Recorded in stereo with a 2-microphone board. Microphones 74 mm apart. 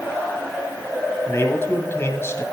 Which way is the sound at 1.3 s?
35° left (ahead or behind).